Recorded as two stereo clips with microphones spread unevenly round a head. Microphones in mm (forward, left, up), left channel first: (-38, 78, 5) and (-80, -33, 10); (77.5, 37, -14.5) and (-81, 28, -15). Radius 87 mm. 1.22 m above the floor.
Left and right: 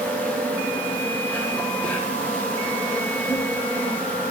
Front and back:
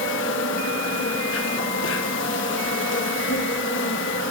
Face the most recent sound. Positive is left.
turn(degrees=-10)